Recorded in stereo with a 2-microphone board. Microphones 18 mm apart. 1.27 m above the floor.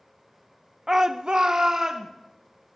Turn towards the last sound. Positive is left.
turn(degrees=-50)  # may be behind; listen again after turning